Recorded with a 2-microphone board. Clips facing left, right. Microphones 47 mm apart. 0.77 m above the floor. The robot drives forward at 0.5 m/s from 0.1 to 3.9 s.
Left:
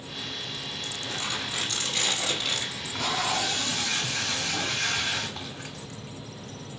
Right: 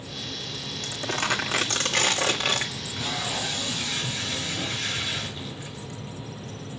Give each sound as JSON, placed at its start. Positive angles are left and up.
{"t": 0.8, "sound": "crumpling", "side_deg": -60, "distance_m": 2.5}
{"t": 2.8, "sound": "tape being pulled", "side_deg": 65, "distance_m": 6.0}